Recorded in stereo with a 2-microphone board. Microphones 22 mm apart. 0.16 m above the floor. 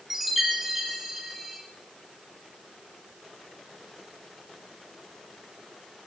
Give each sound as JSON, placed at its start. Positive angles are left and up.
{"t": 0.1, "sound": "a chime", "side_deg": -15, "distance_m": 1.0}